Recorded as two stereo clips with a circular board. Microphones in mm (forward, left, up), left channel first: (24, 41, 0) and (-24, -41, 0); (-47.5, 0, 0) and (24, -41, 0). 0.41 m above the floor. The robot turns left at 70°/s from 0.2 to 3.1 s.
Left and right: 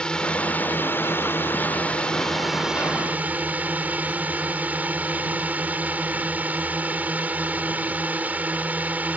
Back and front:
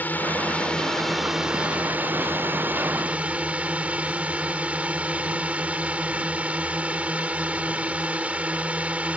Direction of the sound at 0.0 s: 125° left.